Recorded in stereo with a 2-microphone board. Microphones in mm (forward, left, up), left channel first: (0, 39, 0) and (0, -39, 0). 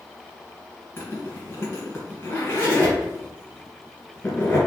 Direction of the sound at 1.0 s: 30° left (ahead or behind).